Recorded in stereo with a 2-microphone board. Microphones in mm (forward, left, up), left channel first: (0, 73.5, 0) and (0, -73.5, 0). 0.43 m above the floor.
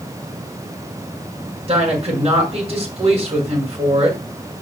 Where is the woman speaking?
40° right (ahead or behind), 5 m.